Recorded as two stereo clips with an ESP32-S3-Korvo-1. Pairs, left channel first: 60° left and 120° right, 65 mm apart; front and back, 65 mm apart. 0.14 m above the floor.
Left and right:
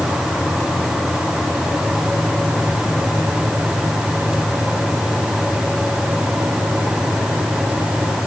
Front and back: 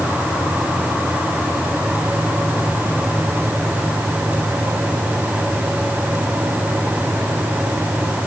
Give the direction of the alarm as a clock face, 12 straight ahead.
I don't hear an alarm.